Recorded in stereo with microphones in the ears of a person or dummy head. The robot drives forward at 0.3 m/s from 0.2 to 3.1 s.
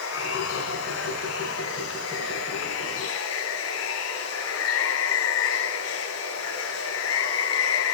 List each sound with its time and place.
0.0 s running water: 85° left, 9.5 m